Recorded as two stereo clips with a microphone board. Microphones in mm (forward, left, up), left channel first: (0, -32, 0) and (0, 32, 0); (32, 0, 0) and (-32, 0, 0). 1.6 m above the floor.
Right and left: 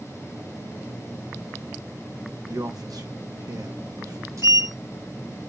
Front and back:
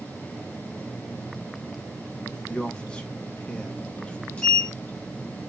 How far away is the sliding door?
About 3.5 m.